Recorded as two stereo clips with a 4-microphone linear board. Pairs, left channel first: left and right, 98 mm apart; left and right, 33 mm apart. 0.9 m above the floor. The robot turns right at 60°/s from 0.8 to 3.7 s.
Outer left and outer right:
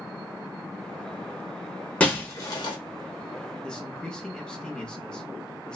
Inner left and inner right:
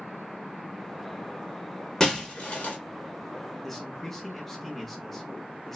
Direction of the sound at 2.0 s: 15° left (ahead or behind).